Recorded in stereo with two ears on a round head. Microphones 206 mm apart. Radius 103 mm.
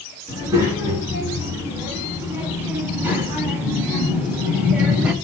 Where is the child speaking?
10° right (ahead or behind), 7 m; by 5.2 s 5° right (ahead or behind), 3 m.